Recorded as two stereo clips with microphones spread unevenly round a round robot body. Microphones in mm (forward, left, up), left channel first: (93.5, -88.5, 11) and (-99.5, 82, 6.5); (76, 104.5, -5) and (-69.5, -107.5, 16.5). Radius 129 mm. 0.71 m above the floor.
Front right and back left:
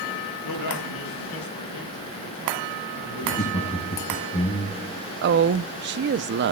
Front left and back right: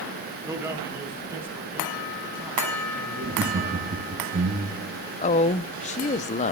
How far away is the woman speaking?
About 0.6 m.